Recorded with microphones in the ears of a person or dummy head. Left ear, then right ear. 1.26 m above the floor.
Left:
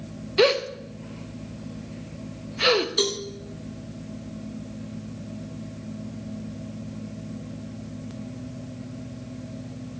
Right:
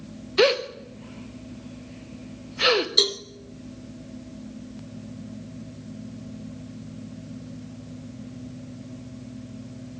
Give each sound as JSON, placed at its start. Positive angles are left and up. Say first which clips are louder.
{"t": 0.4, "sound": "a gasp", "louder": "even", "side_deg": -10, "distance_m": 1.0}
{"t": 3.0, "sound": "a cowbell", "louder": "right 4 dB", "side_deg": -25, "distance_m": 0.9}